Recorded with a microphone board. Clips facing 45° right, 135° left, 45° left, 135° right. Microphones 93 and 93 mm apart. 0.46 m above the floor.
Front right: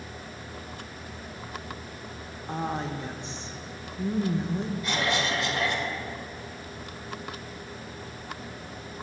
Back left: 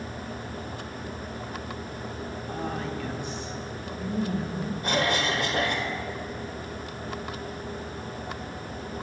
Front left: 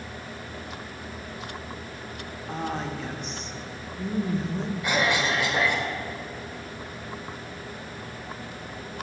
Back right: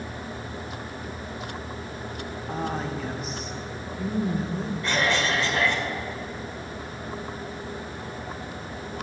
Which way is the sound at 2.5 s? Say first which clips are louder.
Front right 3 dB, back right 1 dB; 55° right.